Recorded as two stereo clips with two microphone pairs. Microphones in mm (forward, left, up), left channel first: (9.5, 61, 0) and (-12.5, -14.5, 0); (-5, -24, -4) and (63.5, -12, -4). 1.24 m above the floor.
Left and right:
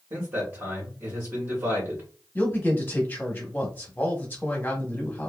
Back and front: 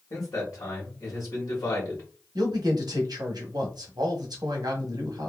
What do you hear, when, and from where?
0.1 s a man speaking: 160° right, 1.3 m
2.4 s a man speaking: 10° left, 1.0 m